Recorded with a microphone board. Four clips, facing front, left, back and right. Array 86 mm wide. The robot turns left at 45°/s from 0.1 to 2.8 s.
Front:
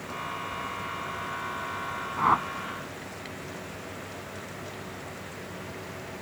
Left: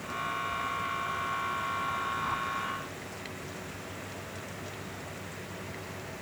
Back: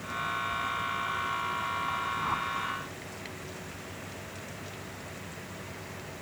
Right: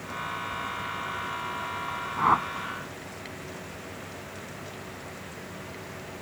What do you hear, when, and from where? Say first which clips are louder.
2.2 s a whoosh: right 9 dB, front 8 dB; 45° right; by 2.5 s 60° right